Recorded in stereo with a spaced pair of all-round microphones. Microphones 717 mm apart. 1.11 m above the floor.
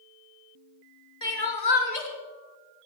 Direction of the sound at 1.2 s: 60° left (ahead or behind).